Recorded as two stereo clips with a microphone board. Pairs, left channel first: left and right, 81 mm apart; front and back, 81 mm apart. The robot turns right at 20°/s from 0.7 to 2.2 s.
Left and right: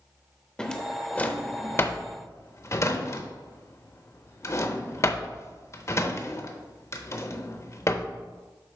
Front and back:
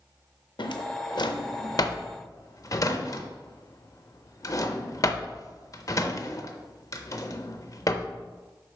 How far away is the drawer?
About 0.6 m.